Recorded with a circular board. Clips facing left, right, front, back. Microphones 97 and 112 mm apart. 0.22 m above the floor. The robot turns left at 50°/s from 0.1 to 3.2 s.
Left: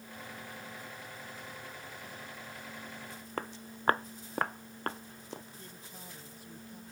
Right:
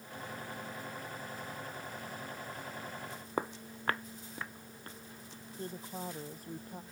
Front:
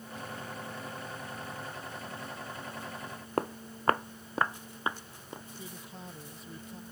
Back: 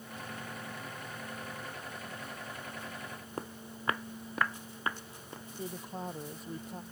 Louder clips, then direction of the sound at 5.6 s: Right 9 dB, back 6 dB; 135° right.